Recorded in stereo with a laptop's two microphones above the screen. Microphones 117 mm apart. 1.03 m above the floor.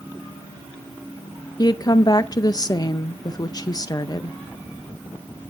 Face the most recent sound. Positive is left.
turn(degrees=35)  # may be behind; listen again after turning